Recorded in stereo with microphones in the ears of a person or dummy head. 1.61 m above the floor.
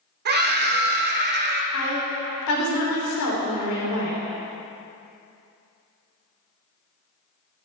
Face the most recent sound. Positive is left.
turn(degrees=70)  # may be behind; listen again after turning